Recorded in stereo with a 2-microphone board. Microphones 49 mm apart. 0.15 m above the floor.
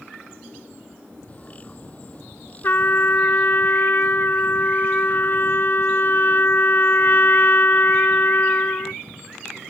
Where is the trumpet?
45° left (ahead or behind).